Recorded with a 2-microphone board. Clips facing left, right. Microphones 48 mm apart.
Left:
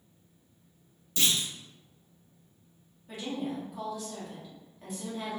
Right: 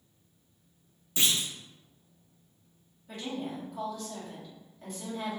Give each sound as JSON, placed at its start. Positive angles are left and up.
{"t": 1.2, "sound": "a clunk", "side_deg": -25, "distance_m": 0.6}
{"t": 3.1, "sound": "a woman speaking", "side_deg": 5, "distance_m": 1.1}